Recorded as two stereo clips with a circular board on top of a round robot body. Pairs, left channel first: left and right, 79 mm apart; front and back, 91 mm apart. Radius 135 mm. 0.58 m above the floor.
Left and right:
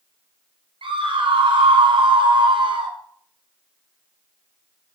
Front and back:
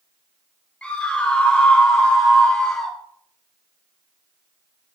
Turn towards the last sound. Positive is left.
turn(degrees=-85)